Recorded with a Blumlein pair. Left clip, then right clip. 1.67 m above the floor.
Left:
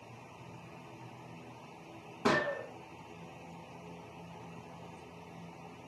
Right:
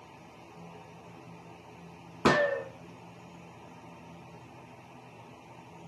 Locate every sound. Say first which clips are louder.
2.2 s a gunshot: right 6 dB; 25° right, 0.6 m